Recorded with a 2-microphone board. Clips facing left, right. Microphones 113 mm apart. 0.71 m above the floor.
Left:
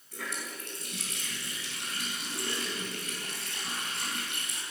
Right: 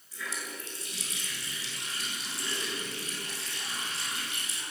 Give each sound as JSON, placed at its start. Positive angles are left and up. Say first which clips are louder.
{"t": 0.1, "sound": "a running tap", "louder": "even", "side_deg": 55, "distance_m": 7.5}